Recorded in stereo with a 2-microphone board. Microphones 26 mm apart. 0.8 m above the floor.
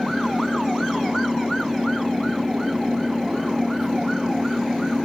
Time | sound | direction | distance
0.0 | an engine running | 15° right (ahead or behind) | ?